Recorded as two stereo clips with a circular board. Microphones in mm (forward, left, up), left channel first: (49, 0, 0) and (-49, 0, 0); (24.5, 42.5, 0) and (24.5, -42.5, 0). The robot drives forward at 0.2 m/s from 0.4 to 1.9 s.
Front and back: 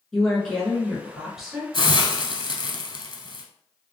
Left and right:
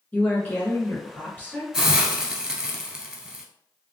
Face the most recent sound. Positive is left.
turn(degrees=-15)